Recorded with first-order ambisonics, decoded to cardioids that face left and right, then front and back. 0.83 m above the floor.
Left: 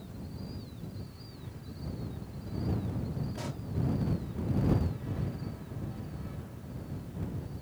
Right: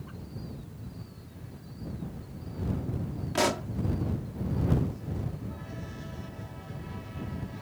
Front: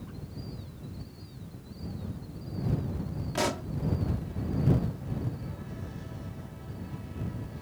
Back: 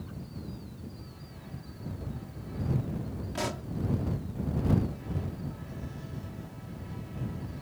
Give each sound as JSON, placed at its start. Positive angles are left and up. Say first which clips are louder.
{"t": 3.4, "sound": "a pop", "louder": "right 15 dB, front 5 dB", "azimuth_deg": -75}